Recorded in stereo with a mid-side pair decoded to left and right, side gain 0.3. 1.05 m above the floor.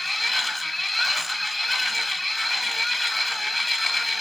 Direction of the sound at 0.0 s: 20° left.